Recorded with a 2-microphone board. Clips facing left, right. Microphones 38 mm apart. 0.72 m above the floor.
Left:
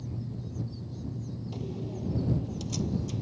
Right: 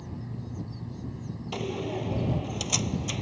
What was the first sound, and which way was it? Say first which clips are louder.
An aircraft: even; 45° right (ahead or behind).